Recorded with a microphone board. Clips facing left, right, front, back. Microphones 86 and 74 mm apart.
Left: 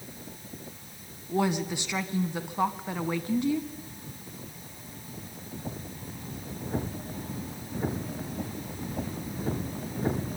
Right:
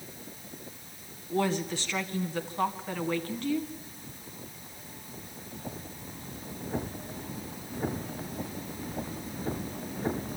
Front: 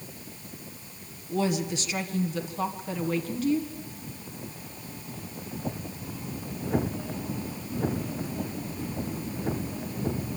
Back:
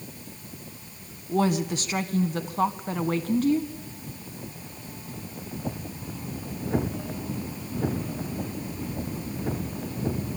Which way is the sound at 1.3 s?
160° left.